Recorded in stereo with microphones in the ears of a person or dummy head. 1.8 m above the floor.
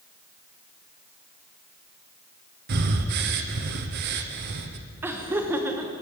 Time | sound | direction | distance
2.7 | breathing | 55° right (ahead or behind) | 0.7 m
5.0 | laughter | 10° right (ahead or behind) | 0.8 m